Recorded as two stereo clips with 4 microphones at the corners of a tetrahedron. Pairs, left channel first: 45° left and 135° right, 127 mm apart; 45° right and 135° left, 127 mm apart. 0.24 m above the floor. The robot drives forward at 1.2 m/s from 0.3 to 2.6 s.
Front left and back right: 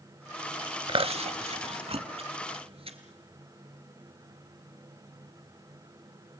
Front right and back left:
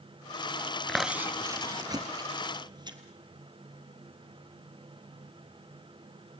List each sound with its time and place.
0.9 s chewing: 125° right, 0.5 m; by 3.0 s 175° right, 2.5 m